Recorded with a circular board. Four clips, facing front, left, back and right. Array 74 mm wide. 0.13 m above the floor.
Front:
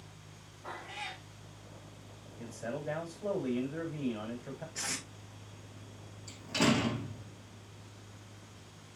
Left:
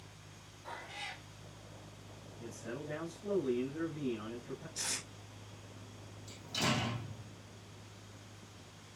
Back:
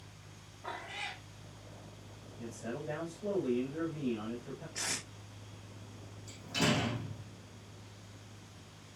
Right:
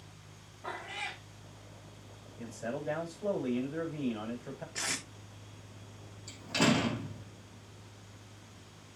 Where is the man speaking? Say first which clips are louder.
Right 6 dB, front 2 dB; 60° right, 7 m.